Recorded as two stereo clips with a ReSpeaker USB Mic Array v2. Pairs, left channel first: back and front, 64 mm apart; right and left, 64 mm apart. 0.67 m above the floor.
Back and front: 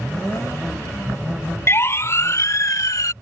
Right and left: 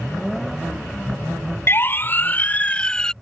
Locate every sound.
1.7 s a siren: 135° right; by 3.1 s 170° right